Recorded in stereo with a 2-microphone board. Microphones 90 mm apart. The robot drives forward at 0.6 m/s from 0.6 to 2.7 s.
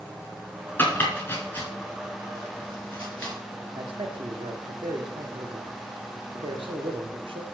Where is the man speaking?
75° right (ahead or behind), 1.2 m.